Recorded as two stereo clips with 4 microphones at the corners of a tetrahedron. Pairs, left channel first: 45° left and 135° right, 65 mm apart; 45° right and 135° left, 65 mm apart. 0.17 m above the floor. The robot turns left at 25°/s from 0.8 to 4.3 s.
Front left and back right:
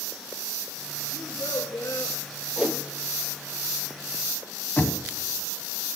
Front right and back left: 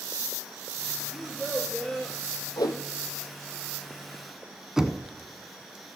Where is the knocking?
65° left, 0.7 m.